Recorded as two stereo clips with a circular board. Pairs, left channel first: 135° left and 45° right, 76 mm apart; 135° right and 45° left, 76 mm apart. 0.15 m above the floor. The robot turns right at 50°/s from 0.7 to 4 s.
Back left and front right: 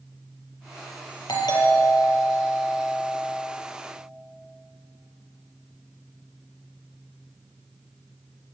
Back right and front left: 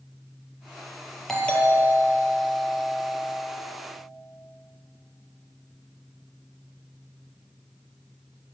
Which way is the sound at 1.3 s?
140° left.